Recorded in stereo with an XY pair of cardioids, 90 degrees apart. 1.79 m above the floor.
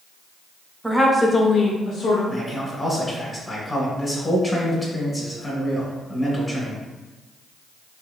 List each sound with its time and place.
0.8 s a woman speaking: 5° right, 0.8 m; by 2.2 s 80° left, 0.9 m
2.3 s a man speaking: 20° left, 1.2 m